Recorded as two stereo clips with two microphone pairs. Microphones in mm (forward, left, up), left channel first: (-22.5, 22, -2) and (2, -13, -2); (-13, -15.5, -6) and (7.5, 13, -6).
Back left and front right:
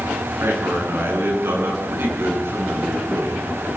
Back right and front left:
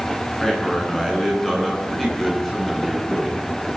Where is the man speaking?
50° right, 10 m; by 3.5 s 40° right, 9 m.